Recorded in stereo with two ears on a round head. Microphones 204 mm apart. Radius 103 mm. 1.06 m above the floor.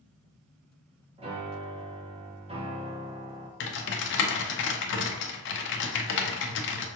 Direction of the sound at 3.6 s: 55° left (ahead or behind).